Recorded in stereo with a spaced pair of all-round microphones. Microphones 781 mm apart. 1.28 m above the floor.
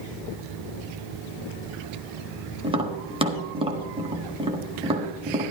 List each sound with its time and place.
2.6 s tapping: 5° right (ahead or behind), 1.5 m